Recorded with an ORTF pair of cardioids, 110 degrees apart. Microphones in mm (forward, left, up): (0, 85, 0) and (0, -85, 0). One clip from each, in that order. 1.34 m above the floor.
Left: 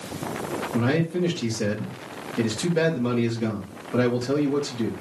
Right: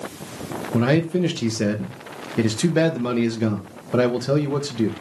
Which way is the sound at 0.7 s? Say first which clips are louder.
Right 5 dB; 40° right.